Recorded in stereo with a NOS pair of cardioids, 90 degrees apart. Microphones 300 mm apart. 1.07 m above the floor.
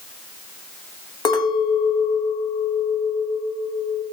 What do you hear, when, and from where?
1.2 s a clink: 15° left, 0.6 m